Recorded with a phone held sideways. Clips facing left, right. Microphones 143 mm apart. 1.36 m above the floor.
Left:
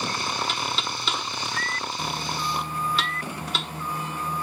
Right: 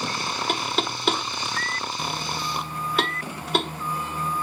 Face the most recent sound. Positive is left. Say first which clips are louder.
# right 4 dB
turn(degrees=-55)  # may be behind; listen again after turning